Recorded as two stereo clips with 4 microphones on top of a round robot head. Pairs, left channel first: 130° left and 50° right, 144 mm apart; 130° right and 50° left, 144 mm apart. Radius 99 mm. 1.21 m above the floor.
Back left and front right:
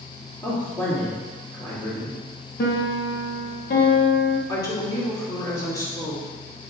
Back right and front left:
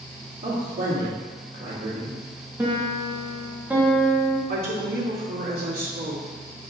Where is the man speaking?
60° left, 2.5 m.